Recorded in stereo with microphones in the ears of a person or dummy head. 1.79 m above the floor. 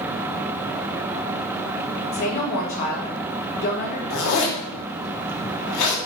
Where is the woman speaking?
50° left (ahead or behind), 1.1 m.